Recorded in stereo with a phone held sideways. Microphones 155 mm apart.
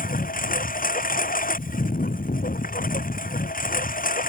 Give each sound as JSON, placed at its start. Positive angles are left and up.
{"t": 0.0, "sound": "a lawn mower", "side_deg": 65}